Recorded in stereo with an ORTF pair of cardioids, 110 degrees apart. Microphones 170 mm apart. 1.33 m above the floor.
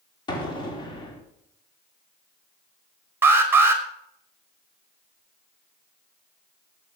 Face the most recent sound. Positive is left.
turn(degrees=-15)